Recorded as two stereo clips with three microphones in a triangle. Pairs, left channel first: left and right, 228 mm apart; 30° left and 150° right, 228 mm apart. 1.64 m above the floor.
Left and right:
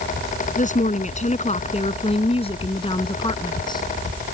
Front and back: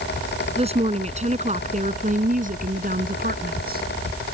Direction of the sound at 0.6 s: 145° left.